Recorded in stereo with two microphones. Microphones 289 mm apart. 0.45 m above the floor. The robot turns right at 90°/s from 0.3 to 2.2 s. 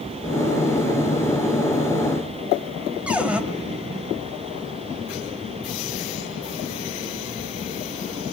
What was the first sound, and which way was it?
A cupboard door, 5° right (ahead or behind).